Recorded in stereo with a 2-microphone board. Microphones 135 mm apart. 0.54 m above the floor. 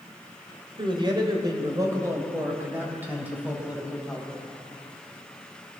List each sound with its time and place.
0.8 s a man speaking: 40° right (ahead or behind), 2.5 m; by 4.4 s 5° right (ahead or behind), 3.5 m